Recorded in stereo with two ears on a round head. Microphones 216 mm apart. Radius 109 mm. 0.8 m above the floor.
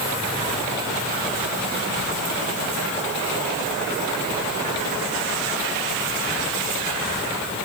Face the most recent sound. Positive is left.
No sound to turn to.